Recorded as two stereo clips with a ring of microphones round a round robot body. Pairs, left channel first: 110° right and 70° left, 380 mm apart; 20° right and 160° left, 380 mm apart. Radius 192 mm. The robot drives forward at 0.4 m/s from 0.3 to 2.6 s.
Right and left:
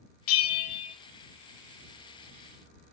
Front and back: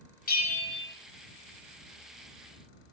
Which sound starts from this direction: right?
A bell, at 0.3 s.